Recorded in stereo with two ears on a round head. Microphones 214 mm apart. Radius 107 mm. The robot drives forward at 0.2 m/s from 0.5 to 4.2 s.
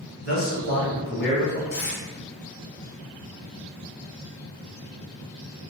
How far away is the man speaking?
About 1.2 m.